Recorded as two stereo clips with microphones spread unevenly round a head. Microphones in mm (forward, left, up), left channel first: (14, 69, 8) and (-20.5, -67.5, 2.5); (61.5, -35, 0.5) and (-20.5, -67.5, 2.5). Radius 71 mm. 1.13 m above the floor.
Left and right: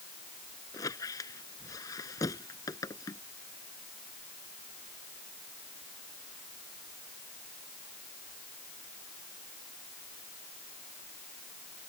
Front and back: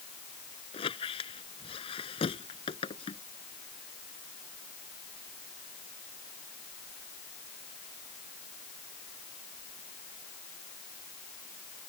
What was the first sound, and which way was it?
A squeak, 10° left.